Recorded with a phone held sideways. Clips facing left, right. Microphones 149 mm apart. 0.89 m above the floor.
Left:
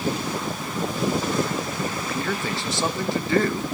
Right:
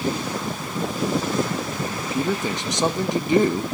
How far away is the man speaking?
About 0.8 m.